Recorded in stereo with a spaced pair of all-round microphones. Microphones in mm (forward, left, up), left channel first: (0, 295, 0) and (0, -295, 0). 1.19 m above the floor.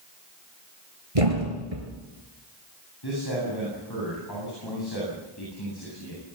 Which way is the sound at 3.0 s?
45° left (ahead or behind).